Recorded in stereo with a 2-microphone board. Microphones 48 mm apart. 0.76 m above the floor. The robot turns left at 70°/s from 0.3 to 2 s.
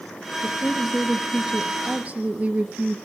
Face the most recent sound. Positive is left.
turn(degrees=-70)